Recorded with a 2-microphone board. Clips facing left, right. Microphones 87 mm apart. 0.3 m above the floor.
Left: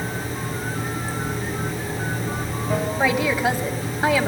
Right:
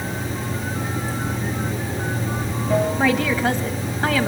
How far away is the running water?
About 4 m.